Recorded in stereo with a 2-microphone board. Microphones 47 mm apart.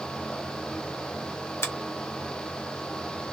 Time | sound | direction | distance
1.6 | a finger snap | 55° left (ahead or behind) | 0.8 m